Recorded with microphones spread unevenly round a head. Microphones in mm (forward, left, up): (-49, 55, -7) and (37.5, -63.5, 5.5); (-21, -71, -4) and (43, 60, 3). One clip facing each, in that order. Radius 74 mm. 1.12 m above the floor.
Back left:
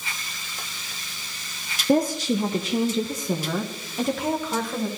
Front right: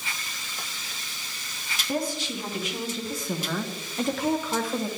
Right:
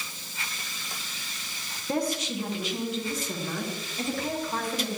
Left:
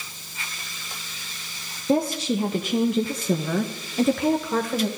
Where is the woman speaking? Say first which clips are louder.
Back left 9 dB, left 7 dB; 130° left, 0.8 m; by 4.9 s 35° left, 1.5 m.